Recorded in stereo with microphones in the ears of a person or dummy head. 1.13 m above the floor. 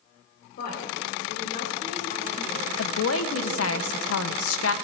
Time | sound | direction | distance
0.6 | a woman speaking | 60° left (ahead or behind) | 4.5 m
2.8 | a woman speaking | 80° left | 0.8 m